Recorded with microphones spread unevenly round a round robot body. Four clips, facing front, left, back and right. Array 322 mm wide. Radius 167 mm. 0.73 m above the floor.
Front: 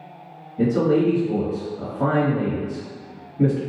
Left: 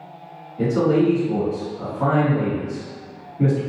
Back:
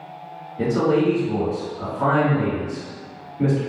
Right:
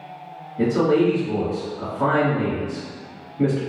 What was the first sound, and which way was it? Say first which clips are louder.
A man speaking: even, front 1 dB; 30° right.